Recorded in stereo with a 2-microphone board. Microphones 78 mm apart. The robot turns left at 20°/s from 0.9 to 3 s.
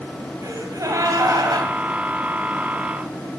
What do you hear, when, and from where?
0.4 s a gasp: 45° right (ahead or behind), 2.5 m; by 1.7 s 60° right (ahead or behind), 2.5 m